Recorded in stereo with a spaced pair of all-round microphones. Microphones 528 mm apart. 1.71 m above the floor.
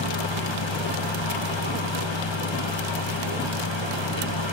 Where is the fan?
55° left (ahead or behind), 1.5 m.